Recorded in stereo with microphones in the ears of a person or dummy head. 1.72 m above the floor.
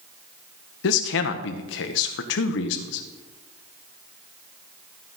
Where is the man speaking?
65° left (ahead or behind), 1.2 m.